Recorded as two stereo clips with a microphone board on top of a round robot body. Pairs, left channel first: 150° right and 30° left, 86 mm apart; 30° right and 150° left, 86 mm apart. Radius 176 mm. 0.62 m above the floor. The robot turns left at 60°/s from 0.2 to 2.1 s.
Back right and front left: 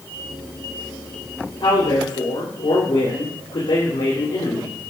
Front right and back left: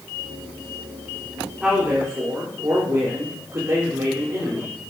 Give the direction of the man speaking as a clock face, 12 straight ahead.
4 o'clock.